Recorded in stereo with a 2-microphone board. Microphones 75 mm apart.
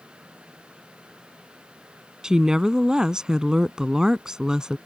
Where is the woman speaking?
10° right (ahead or behind).